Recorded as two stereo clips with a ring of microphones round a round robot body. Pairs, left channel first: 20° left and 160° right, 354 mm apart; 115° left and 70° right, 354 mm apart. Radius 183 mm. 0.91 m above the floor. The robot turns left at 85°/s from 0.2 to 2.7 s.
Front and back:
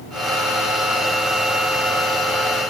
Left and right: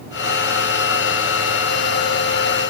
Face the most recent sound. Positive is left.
No sound to turn to.